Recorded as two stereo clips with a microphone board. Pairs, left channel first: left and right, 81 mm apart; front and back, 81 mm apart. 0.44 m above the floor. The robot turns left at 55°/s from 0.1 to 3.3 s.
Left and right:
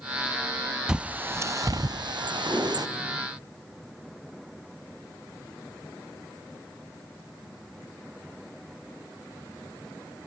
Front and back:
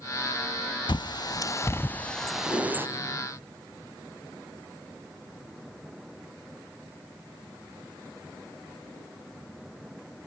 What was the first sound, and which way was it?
A bird, 10° right.